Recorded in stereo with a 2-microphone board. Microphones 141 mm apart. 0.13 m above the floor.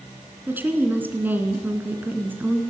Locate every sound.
0.5 s a woman speaking: 15° right (ahead or behind), 1.7 m